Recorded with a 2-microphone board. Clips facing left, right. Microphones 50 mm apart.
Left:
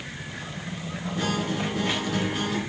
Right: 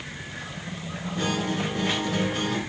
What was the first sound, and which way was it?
A guitar, centre (ahead or behind).